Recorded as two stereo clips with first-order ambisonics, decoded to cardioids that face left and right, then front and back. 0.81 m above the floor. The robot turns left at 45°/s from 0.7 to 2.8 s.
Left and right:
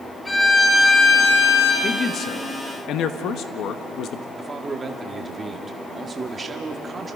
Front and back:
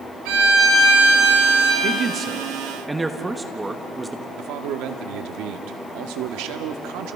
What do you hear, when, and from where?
0.2 s a violin: 170° left, 5 m; by 1.7 s 125° left, 5 m
1.8 s a man speaking: 145° left, 1.0 m; by 4.2 s 105° left, 1.0 m
4.3 s a man speaking: 165° right, 1.4 m